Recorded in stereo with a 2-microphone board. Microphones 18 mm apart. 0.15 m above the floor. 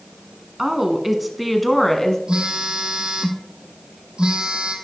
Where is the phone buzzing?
55° right (ahead or behind), 1.3 m.